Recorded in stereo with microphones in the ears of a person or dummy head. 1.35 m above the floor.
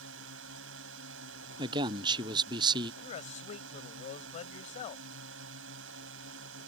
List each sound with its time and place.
0.0 s a drone: 70° right (ahead or behind)
1.6 s a man speaking: 25° right (ahead or behind)
3.0 s a man speaking: 40° left (ahead or behind)